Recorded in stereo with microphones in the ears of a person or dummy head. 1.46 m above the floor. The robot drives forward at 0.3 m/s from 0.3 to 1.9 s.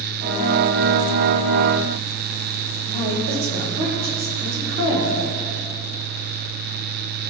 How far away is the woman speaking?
About 3.5 m.